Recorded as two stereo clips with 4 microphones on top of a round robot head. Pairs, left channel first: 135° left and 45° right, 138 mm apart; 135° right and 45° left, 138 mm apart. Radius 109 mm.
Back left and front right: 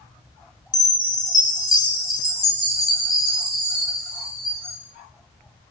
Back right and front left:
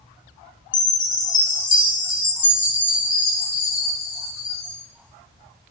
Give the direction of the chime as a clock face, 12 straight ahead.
5 o'clock.